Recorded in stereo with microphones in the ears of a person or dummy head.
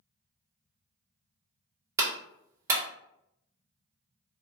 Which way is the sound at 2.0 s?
15° right (ahead or behind).